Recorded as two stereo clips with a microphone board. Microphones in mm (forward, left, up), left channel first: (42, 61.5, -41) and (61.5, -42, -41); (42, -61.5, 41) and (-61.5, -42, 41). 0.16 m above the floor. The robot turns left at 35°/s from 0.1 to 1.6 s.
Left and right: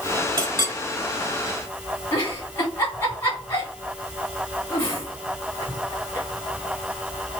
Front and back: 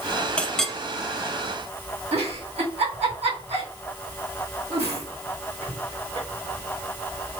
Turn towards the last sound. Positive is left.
turn(degrees=160)